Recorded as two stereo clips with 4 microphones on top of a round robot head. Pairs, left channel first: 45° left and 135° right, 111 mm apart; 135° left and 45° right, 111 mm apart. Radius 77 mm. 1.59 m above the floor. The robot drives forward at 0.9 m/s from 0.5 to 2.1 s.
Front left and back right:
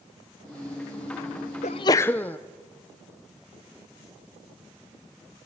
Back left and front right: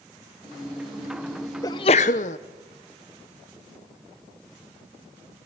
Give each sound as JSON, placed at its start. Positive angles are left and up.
{"t": 1.6, "sound": "a sneeze", "azimuth_deg": 75, "distance_m": 0.6}